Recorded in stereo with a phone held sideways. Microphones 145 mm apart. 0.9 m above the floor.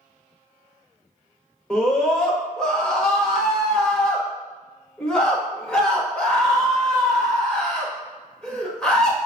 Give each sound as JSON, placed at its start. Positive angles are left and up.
{"t": 1.7, "sound": "a scream", "side_deg": 5, "distance_m": 1.3}